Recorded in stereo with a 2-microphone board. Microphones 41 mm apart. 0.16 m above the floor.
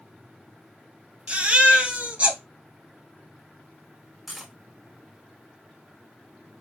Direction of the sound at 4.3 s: 5° right (ahead or behind).